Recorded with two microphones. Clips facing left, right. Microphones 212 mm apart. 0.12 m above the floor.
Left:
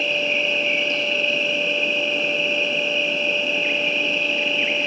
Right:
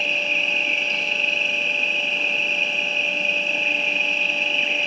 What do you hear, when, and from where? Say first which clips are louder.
0.0 s an insect: left 6 dB; 30° right (ahead or behind), 1.3 m